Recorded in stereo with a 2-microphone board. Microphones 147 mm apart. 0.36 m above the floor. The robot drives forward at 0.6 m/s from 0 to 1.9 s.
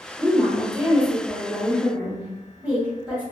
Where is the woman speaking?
15° right (ahead or behind), 0.9 m; by 3.2 s 10° right (ahead or behind), 1.7 m.